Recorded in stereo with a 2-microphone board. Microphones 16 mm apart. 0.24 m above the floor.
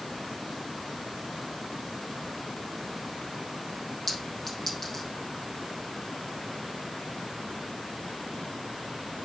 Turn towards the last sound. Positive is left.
turn(degrees=30)  # may be behind; listen again after turning